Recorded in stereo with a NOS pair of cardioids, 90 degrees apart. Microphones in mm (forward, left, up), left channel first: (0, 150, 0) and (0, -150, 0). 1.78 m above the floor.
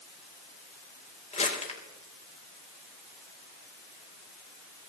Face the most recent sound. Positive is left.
turn(degrees=20)